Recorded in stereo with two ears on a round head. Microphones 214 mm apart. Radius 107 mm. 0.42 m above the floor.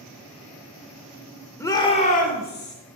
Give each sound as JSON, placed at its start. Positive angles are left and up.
{"t": 1.6, "sound": "a shout", "side_deg": 10, "distance_m": 0.9}